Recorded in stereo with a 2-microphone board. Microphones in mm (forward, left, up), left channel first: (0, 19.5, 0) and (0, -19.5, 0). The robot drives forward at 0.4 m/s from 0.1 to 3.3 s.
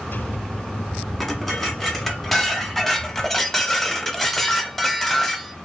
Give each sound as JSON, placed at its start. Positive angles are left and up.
{"t": 1.2, "sound": "dishes clattering", "side_deg": 5, "distance_m": 1.4}